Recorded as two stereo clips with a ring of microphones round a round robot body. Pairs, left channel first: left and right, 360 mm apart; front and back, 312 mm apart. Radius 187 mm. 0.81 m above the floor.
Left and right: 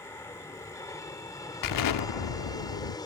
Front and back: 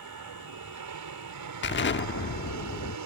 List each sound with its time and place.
0.0 s an aircraft: 170° left
1.6 s an explosion: 55° left